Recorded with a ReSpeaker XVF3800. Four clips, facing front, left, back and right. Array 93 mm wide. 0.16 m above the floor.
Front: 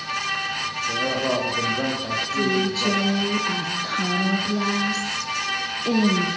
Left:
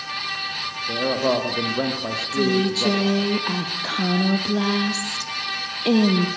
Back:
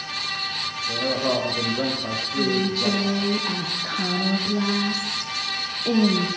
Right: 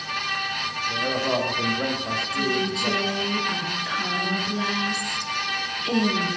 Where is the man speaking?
85° left, 6.5 m; by 3.3 s 105° left, 6 m.